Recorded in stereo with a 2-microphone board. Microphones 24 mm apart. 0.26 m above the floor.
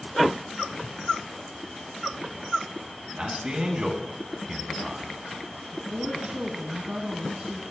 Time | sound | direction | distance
3.2 | a man speaking | 45° right (ahead or behind) | 2 m
5.7 | a woman speaking | 45° right (ahead or behind) | 1.9 m